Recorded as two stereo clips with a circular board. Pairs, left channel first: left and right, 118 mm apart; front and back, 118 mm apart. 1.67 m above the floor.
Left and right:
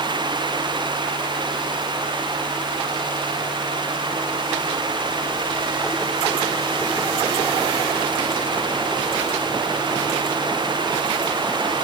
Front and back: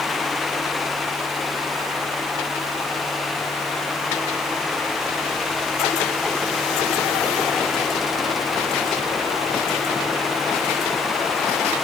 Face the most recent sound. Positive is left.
No sound to turn to.